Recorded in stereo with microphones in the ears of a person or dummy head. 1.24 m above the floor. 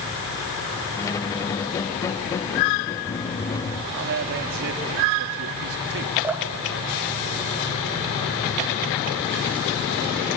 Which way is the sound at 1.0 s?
20° left (ahead or behind).